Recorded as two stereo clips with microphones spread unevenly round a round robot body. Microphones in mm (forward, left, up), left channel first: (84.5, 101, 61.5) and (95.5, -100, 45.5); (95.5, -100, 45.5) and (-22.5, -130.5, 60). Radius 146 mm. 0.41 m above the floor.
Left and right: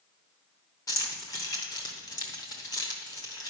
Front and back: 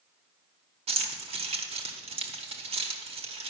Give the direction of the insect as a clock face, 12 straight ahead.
I don't hear an insect.